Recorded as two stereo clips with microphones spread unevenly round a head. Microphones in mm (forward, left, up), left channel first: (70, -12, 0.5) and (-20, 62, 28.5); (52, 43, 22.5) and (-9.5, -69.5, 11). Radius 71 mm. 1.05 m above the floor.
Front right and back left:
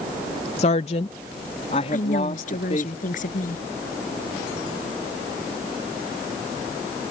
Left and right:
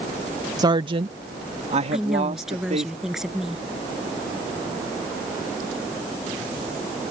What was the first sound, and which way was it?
A woman speaking, 60° right.